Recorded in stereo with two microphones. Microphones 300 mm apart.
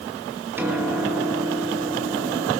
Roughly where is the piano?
Centre.